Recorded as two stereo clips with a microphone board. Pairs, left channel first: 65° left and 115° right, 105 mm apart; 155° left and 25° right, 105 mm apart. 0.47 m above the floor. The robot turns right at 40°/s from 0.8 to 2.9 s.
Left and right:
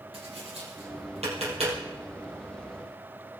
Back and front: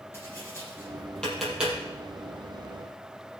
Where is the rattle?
I don't hear a rattle.